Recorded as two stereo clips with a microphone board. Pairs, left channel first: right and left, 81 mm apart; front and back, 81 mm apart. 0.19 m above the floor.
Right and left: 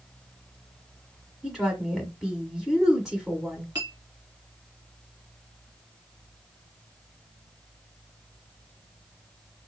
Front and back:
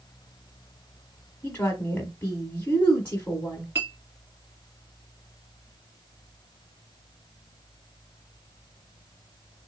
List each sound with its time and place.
1.4 s a woman speaking: 10° left, 1.1 m
3.8 s a clink: 120° left, 2 m